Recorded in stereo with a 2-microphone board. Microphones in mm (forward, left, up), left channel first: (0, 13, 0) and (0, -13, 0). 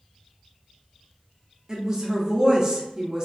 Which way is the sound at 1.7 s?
25° right (ahead or behind).